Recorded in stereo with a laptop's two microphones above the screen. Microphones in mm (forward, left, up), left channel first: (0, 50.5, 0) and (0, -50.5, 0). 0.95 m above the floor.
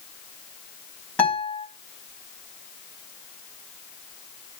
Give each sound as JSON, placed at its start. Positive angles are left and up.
{"t": 1.2, "sound": "a guitar", "side_deg": 15, "distance_m": 3.0}